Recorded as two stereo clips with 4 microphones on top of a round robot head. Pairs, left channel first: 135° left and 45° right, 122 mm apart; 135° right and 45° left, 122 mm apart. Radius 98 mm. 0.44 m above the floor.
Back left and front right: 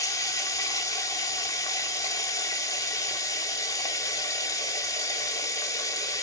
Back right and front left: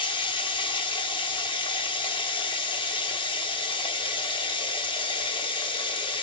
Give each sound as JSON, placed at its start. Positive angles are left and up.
{"t": 0.0, "sound": "running water", "azimuth_deg": -170, "distance_m": 0.7}